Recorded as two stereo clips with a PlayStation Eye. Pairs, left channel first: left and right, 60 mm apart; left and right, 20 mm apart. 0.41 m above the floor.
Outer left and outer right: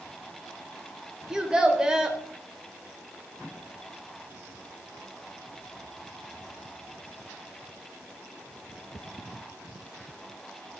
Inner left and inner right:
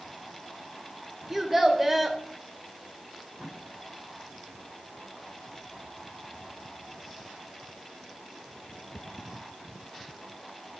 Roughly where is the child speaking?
Centre.